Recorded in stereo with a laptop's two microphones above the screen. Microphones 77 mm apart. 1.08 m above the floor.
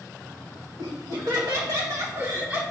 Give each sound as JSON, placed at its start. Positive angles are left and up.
{"t": 0.8, "sound": "laughter", "side_deg": -75, "distance_m": 2.5}